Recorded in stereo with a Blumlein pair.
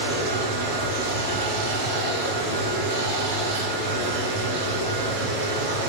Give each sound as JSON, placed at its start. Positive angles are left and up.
{"t": 0.0, "sound": "running water", "azimuth_deg": -45, "distance_m": 2.0}